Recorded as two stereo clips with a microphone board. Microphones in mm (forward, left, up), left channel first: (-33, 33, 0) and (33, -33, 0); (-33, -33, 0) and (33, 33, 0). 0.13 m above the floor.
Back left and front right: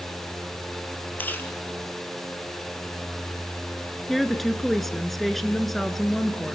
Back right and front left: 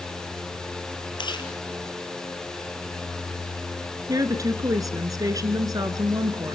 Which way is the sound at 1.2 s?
160° right.